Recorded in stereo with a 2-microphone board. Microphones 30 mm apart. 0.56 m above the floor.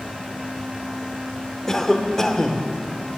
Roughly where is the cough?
Centre.